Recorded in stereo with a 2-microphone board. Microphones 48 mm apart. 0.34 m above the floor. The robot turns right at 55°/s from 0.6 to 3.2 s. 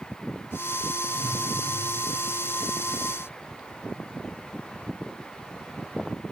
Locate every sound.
1.1 s a whoosh: 70° left (ahead or behind), 4.5 m; by 1.5 s 55° left (ahead or behind), 4.5 m